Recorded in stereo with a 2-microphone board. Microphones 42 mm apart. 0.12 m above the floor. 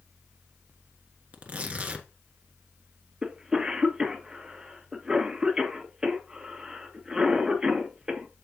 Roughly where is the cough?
Centre.